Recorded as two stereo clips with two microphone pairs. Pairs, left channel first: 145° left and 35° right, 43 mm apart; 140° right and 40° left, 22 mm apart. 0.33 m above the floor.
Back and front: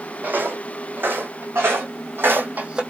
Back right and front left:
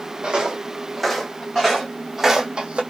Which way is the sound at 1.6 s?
55° right.